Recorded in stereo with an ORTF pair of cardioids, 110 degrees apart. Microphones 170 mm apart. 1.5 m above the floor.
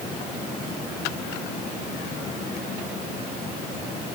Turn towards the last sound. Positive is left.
No sound to turn to.